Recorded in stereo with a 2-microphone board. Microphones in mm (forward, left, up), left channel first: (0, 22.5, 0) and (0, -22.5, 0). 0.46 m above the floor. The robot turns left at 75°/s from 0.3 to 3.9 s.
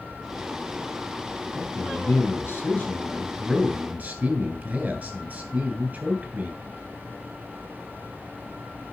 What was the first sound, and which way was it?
A man speaking, 140° left.